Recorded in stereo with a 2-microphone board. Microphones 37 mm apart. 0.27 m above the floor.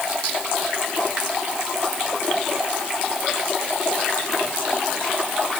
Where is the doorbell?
I don't hear a doorbell.